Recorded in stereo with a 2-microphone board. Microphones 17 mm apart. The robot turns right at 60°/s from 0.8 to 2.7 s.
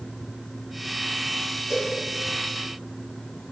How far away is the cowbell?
About 6 m.